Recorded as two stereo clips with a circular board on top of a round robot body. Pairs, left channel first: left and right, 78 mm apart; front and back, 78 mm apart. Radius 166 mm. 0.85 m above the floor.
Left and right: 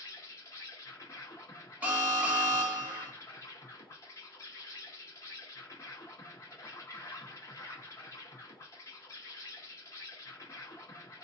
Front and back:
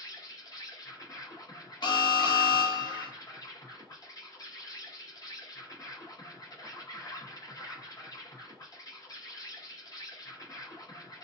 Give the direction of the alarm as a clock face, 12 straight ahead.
1 o'clock.